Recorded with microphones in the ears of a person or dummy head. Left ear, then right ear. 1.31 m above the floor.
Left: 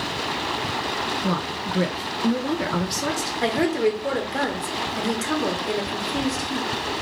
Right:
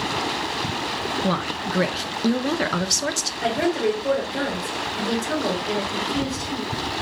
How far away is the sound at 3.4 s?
About 1.1 m.